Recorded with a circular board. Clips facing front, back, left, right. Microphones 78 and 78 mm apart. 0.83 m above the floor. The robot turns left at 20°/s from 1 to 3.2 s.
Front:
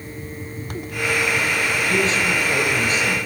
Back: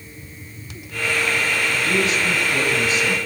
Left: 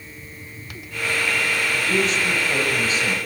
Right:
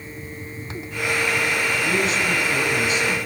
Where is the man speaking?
65° left, 4.5 m; by 3.1 s 40° left, 4.5 m.